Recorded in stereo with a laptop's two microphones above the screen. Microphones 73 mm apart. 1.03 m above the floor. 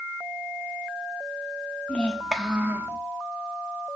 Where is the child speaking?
20° left (ahead or behind), 1.4 m; by 3.0 s 40° right (ahead or behind), 1.4 m.